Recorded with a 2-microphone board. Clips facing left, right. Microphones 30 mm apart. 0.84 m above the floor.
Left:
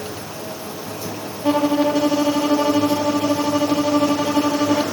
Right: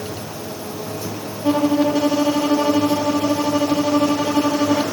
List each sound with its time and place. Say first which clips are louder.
1.4 s a violin: even; 15° left (ahead or behind), 0.8 m